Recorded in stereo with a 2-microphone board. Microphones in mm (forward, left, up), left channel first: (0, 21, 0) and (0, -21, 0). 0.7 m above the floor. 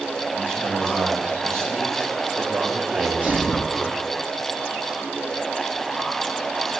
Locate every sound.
0.3 s a man speaking: 75° right (ahead or behind), 4.5 m; by 3.9 s 60° right (ahead or behind), 2.5 m
2.9 s a sneeze: 30° right (ahead or behind), 1.0 m